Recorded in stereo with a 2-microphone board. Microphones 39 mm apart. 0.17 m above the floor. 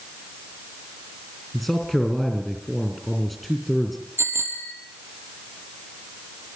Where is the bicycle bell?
75° right (ahead or behind), 4 m.